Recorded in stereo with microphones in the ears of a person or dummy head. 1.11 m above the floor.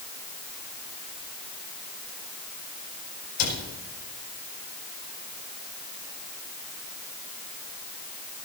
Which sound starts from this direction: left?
A cupboard door, at 3.4 s.